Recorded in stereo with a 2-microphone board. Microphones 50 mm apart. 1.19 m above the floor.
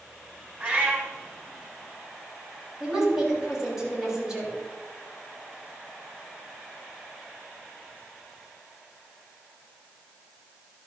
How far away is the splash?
No splash in this recording.